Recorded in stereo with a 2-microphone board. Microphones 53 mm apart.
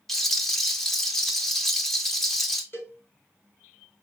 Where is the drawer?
No drawer in this recording.